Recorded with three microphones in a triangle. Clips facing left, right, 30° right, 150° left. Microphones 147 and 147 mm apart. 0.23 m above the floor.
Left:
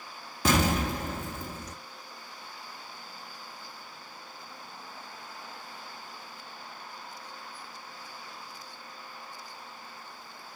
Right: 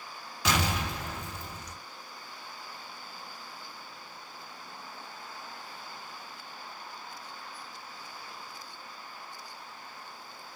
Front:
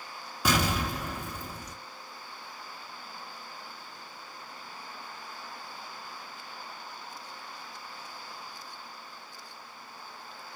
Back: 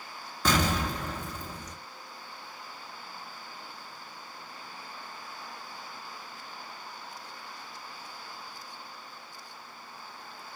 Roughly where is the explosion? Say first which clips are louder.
Left 5 dB, back 1 dB; ahead left.